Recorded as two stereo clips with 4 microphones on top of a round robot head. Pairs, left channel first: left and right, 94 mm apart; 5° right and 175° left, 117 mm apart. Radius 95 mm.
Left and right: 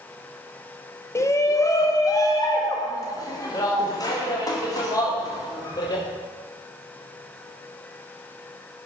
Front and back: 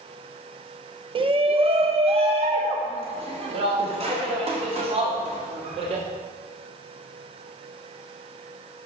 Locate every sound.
1.1 s a shout: 145° left, 1.0 m; by 6.0 s 140° left, 4 m